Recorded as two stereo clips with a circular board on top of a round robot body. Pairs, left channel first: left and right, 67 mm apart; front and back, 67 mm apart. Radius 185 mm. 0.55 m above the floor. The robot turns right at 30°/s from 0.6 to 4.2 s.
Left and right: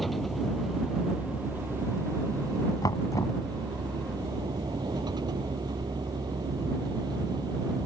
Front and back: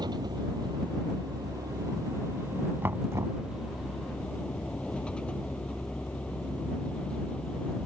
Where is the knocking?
120° left; by 3.4 s 140° left.